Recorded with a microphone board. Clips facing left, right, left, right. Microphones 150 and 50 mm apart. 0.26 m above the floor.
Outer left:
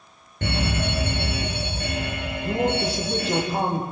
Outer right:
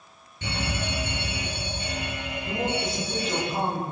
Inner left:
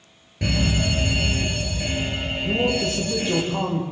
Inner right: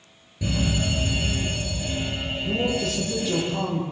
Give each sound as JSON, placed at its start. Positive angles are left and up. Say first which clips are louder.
{"t": 0.4, "sound": "a fire alarm", "louder": "outer left 5 dB, inner left 2 dB", "side_deg": 60, "distance_m": 7.5}
{"t": 2.4, "sound": "a man speaking", "louder": "outer left 5 dB, inner left 3 dB", "side_deg": 35, "distance_m": 10.0}